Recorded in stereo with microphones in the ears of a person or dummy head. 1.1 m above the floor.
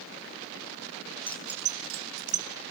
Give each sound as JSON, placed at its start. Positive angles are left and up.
{"t": 1.3, "sound": "keys jangling", "side_deg": 10, "distance_m": 0.9}